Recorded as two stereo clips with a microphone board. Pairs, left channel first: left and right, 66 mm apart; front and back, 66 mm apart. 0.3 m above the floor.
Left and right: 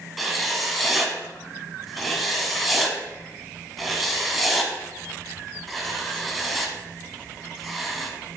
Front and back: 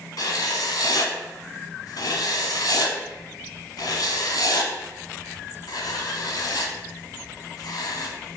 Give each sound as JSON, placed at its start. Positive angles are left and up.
{"t": 0.2, "sound": "writing", "azimuth_deg": 0, "distance_m": 0.9}